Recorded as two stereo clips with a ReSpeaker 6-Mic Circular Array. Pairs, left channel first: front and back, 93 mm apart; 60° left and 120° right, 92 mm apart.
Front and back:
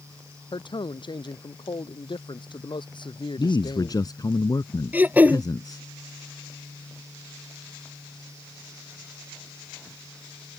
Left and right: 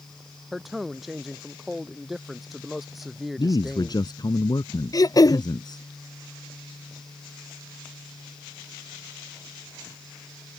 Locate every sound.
0.5 s a man speaking: 30° right
3.4 s a man speaking: 35° left
4.9 s throat clearing: 110° left